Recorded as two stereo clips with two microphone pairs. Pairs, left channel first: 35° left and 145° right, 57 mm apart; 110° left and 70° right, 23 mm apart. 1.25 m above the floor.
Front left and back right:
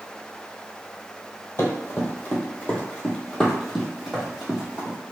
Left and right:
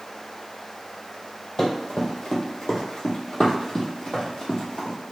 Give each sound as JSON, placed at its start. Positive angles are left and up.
{"t": 1.6, "sound": "running footsteps", "azimuth_deg": 65, "distance_m": 1.7}